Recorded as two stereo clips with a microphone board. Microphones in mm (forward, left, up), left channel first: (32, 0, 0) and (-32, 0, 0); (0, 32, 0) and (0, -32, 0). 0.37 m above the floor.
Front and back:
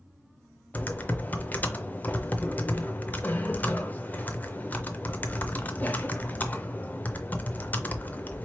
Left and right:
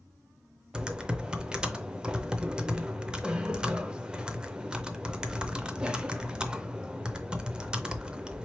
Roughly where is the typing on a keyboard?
Ahead right.